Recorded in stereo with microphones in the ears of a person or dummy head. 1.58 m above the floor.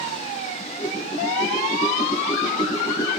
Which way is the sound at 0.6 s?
25° left (ahead or behind).